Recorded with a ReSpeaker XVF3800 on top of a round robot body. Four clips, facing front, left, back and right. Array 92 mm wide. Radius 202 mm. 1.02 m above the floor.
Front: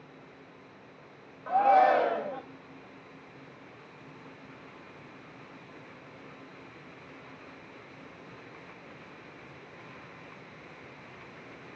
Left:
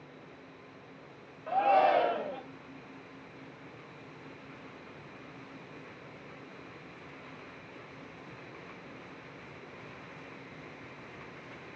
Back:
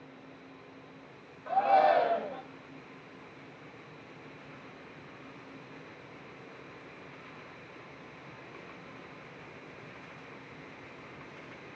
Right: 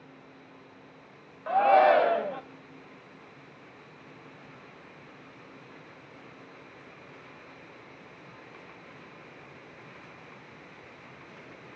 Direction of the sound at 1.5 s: 75° right.